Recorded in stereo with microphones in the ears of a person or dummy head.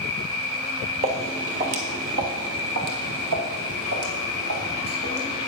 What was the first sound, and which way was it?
An insect, 20° left (ahead or behind).